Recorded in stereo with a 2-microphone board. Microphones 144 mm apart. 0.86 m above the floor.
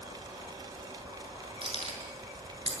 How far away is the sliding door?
No sliding door in this recording.